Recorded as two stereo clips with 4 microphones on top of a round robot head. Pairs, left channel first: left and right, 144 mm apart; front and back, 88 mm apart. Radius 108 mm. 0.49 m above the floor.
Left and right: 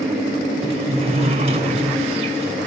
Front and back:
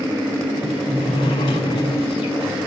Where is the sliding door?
45° right, 1.6 m.